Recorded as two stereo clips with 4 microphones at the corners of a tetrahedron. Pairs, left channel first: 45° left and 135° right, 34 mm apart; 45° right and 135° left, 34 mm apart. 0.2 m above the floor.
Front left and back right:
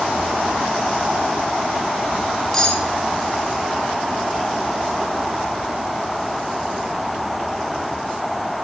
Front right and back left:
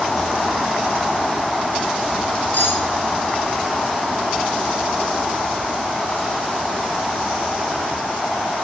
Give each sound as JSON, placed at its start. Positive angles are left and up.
{"t": 2.5, "sound": "cutlery clinking", "azimuth_deg": -40, "distance_m": 2.5}